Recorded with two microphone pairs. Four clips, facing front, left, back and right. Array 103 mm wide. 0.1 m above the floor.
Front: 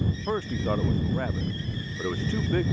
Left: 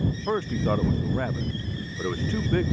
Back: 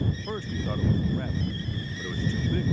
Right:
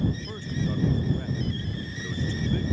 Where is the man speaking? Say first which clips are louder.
Left 7 dB, front 5 dB; 65° left; by 2.7 s 55° left.